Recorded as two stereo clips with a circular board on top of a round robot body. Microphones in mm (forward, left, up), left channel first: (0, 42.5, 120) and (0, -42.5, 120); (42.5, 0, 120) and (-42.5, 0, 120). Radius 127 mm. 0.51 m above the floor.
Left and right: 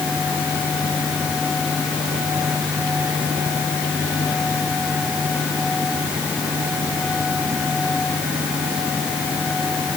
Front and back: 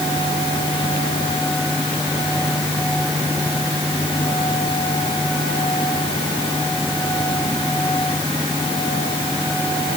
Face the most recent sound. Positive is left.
No sound to turn to.